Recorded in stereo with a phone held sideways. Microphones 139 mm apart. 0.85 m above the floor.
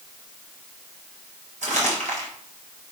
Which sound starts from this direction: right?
Crumpling, at 1.6 s.